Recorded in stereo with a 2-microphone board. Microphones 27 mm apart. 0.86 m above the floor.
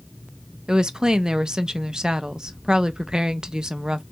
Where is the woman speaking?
30° right (ahead or behind), 0.5 m.